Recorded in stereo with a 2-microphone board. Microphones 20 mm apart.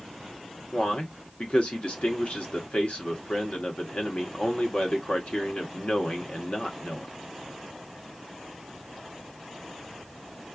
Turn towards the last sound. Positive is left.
turn(degrees=65)  # may be behind; listen again after turning